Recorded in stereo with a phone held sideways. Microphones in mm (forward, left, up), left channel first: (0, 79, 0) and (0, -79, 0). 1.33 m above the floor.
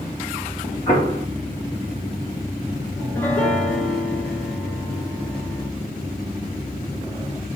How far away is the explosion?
About 1.9 m.